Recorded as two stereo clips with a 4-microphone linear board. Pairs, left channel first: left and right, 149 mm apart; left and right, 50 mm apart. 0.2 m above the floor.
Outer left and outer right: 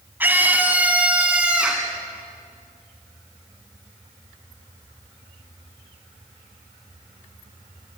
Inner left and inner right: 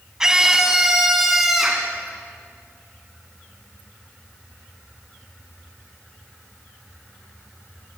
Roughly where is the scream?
Centre.